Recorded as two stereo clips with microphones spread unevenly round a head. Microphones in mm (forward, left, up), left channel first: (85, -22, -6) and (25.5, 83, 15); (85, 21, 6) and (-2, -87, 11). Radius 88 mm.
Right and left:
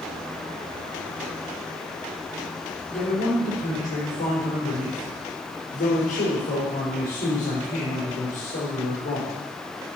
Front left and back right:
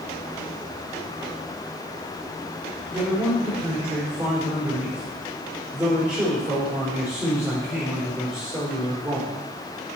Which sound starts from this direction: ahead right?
A man speaking, at 2.9 s.